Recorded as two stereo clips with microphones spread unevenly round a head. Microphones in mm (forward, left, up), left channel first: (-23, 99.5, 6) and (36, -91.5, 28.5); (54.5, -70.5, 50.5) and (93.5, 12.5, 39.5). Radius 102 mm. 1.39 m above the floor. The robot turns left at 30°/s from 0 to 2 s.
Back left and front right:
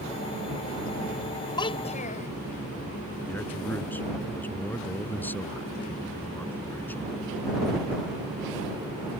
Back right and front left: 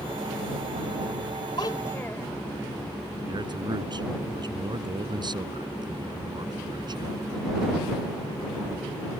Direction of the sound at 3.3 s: 25° left.